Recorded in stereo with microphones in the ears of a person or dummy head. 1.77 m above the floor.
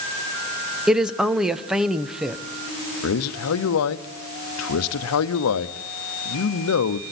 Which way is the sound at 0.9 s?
5° right (ahead or behind).